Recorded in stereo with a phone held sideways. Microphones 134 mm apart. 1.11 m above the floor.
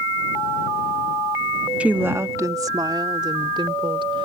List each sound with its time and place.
1.8 s a woman speaking: 10° right (ahead or behind); by 4.3 s 40° right (ahead or behind)